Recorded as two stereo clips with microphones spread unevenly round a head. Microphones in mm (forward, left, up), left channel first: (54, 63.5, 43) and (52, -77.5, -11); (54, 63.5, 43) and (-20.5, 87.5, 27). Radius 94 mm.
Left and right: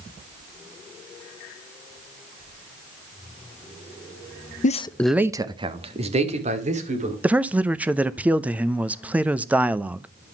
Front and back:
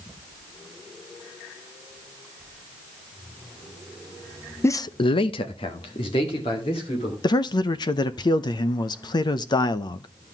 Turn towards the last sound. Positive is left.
turn(degrees=-40)